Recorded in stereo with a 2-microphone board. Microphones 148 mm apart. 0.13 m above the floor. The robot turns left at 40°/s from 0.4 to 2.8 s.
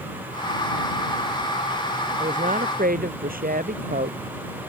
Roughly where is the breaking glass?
I don't hear breaking glass.